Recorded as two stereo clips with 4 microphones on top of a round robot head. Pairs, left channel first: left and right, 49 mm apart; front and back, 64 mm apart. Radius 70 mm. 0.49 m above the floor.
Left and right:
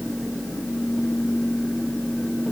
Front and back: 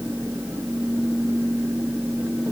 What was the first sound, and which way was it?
Only background noise.